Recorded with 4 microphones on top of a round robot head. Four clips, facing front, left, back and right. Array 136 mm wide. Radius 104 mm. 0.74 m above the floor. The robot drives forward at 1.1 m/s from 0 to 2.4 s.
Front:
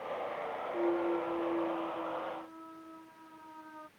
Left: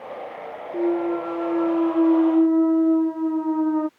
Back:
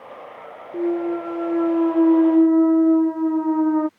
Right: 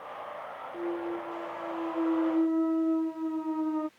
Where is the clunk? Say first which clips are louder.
Left 12 dB, back 10 dB; 125° left; by 3.9 s 155° left.